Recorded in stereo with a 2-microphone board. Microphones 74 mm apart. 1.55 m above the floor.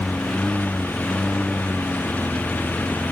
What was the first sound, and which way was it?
A lawn mower, 10° left (ahead or behind).